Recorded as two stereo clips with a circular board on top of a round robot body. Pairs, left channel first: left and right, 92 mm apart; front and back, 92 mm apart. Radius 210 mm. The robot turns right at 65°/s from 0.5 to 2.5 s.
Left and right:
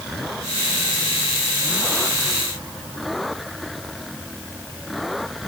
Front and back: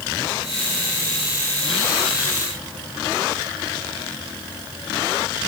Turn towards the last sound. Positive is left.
No sound to turn to.